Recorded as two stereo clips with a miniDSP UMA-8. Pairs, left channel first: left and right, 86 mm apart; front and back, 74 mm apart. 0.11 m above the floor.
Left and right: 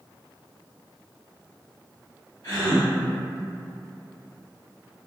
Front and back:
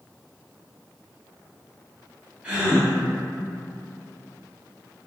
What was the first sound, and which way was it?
A gasp, 115° left.